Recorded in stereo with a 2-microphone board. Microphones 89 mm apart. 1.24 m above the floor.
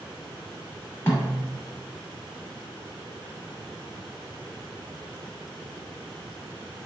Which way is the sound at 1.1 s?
30° left (ahead or behind).